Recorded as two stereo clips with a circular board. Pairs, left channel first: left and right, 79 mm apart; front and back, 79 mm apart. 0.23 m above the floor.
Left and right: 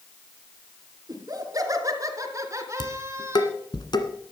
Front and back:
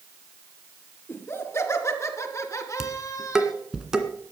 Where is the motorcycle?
I don't hear a motorcycle.